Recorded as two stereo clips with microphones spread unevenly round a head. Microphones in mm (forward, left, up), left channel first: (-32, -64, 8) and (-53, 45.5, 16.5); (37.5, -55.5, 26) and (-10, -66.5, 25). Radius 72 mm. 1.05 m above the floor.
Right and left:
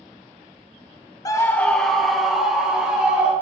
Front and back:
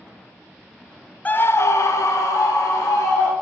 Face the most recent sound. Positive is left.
turn(degrees=20)